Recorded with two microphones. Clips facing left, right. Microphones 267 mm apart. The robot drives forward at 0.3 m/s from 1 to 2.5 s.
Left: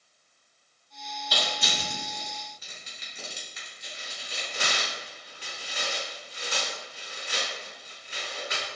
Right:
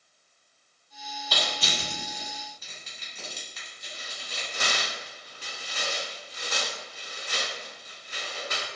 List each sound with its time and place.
1.3 s crushing: 10° left (ahead or behind), 1.1 m; by 4.8 s 15° left (ahead or behind), 0.9 m
3.8 s tearing paper: 50° right (ahead or behind), 1.3 m